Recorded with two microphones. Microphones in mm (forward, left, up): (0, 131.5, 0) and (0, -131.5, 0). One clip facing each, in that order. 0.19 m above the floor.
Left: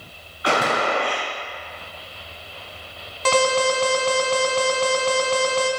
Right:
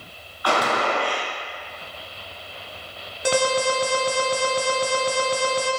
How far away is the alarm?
About 1.0 m.